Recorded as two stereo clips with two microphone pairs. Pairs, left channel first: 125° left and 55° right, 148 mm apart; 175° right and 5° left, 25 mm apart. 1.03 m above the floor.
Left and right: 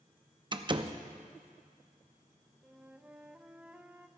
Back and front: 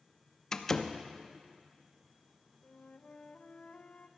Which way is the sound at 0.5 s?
110° right.